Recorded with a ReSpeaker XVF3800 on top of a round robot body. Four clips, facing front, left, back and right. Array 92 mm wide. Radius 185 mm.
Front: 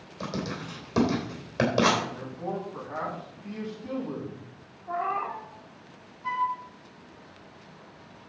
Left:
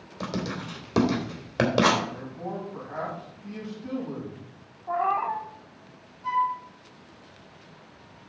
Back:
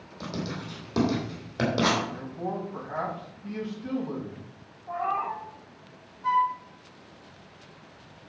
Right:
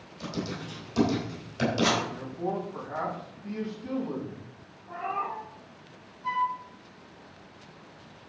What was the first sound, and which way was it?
Writing, 85° left.